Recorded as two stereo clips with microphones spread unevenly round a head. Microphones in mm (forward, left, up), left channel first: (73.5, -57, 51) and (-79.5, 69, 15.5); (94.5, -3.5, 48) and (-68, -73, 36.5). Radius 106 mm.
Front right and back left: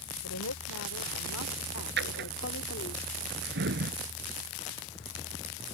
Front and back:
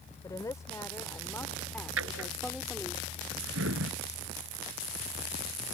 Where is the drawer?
Straight behind.